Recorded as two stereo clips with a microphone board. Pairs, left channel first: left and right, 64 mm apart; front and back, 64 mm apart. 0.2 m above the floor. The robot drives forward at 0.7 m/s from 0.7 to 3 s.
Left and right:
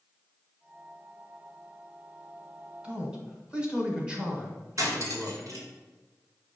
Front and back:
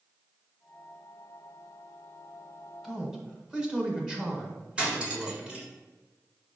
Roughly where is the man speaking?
Behind right.